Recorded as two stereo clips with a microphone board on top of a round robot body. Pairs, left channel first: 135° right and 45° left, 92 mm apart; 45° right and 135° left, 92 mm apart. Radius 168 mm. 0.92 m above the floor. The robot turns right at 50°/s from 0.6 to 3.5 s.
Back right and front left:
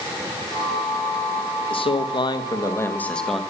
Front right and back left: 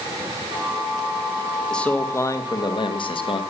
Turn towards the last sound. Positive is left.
turn(degrees=-40)